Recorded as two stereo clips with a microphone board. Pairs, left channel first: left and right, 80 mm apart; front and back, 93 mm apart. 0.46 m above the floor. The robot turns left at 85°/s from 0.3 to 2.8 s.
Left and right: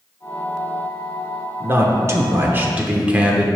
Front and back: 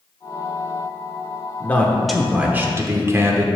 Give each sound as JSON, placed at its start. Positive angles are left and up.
{"t": 1.6, "sound": "a man speaking", "azimuth_deg": -45, "distance_m": 0.9}